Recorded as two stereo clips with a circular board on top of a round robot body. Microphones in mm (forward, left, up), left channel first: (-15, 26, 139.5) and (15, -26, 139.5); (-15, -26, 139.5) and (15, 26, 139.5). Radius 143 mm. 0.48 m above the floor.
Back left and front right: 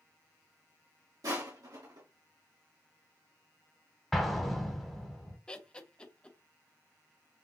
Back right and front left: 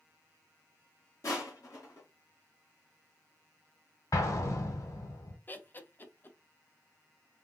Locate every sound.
1.2 s crushing: 80° right, 2.5 m
4.1 s an explosion: 155° right, 1.1 m
5.5 s laughter: 170° right, 1.0 m